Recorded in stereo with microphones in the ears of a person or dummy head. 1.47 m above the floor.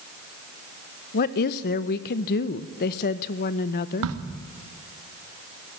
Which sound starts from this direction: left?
A woman speaking, at 1.1 s.